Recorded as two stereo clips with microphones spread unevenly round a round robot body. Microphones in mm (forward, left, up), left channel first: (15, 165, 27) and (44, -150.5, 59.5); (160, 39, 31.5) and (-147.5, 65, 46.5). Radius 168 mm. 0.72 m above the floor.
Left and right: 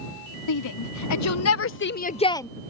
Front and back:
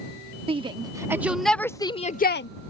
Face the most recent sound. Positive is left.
turn(degrees=20)